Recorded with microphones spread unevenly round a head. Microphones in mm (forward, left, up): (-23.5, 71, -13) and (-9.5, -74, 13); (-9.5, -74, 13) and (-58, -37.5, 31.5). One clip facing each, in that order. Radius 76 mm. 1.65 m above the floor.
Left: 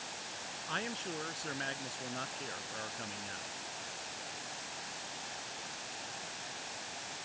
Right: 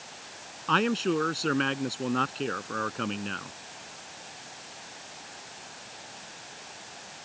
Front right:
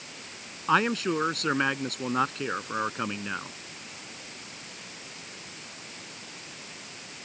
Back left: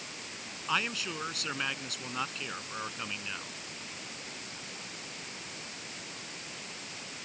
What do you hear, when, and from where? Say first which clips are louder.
0.7 s a man speaking: right 16 dB, front right 9 dB; 75° right